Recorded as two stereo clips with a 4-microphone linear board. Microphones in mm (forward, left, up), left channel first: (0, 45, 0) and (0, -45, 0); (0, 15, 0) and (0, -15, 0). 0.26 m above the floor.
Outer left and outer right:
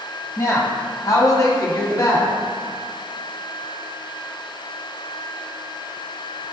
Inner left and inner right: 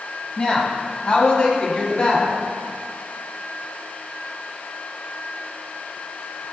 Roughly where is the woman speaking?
Left.